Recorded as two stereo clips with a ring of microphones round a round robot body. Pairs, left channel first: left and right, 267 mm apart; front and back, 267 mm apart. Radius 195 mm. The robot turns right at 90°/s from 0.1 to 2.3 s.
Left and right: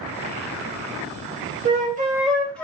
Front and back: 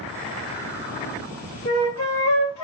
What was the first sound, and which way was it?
A flute, 55° right.